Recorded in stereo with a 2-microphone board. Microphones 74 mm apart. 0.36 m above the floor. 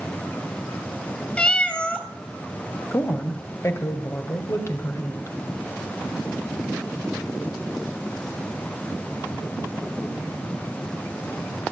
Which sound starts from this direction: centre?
A cat meowing, at 1.4 s.